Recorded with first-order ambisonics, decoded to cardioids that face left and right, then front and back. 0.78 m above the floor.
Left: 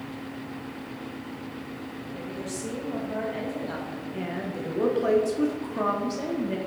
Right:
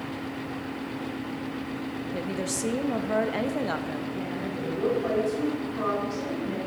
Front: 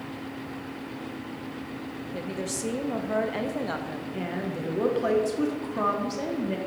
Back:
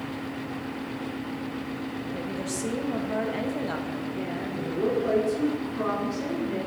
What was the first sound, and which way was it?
A woman speaking, 75° right.